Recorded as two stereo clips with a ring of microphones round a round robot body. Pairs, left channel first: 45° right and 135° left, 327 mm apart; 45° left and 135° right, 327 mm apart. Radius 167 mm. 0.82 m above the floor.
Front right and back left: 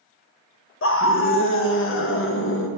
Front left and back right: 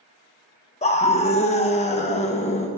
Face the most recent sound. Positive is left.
turn(degrees=-15)